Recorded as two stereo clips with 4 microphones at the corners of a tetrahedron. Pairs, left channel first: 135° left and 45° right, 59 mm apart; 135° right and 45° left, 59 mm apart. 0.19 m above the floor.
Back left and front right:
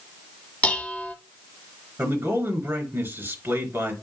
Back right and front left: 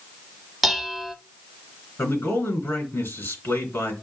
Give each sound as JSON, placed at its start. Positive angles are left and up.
{"t": 0.6, "sound": "dishes clattering", "azimuth_deg": 135, "distance_m": 0.7}
{"t": 2.0, "sound": "a man speaking", "azimuth_deg": -85, "distance_m": 3.0}